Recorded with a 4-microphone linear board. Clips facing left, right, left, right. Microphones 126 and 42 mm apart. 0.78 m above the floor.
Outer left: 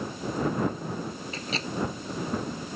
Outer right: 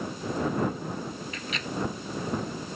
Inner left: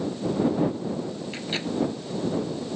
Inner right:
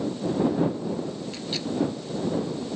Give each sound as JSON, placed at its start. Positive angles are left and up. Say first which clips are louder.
{"t": 1.3, "sound": "a microwave", "louder": "outer left 2 dB, inner left 1 dB", "side_deg": 35}